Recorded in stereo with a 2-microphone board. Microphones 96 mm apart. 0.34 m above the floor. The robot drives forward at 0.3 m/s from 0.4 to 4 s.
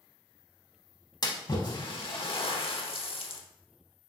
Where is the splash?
50° left (ahead or behind), 0.8 m; by 3.4 s 70° left (ahead or behind), 0.7 m.